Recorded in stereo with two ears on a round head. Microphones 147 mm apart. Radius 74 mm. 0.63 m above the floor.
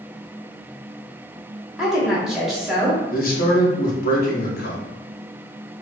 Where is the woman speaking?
Centre (ahead or behind), 1.1 m.